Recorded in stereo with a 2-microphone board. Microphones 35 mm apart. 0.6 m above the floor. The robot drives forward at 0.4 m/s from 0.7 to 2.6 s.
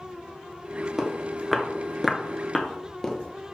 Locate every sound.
1.0 s footsteps: 15° right (ahead or behind), 0.5 m; by 3.5 s 15° left (ahead or behind), 0.8 m